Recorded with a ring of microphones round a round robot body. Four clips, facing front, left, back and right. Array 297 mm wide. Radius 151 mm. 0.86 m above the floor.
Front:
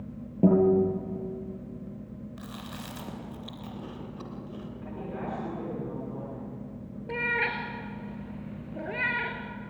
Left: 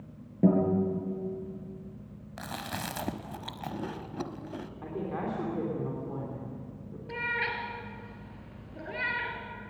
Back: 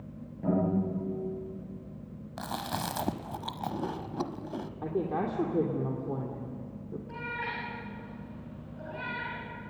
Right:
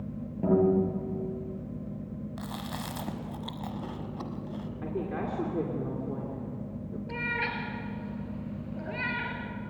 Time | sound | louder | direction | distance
0.4 | a guitar | right 1 dB, front 8 dB | 30° left | 8 m
2.4 | chewing | left 4 dB, back 11 dB | 155° left | 1.1 m
4.8 | a woman speaking | right 1 dB, back 7 dB | 160° right | 3 m
7.1 | a cat meowing | left 1 dB, front 8 dB | 10° left | 3.5 m